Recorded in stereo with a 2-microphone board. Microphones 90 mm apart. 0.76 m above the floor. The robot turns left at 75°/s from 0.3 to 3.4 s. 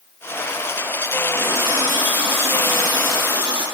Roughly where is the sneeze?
No sneeze in this recording.